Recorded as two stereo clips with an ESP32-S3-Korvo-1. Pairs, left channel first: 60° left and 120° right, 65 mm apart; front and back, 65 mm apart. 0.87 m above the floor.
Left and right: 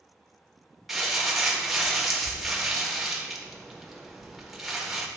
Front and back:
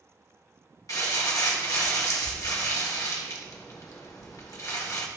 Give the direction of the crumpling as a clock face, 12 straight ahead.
1 o'clock.